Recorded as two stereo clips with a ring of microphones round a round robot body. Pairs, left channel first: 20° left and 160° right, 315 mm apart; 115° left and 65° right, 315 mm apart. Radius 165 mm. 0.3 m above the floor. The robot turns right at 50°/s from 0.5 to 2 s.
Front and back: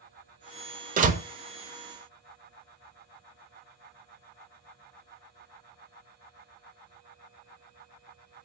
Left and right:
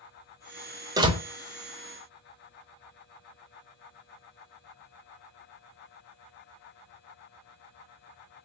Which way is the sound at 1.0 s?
130° right.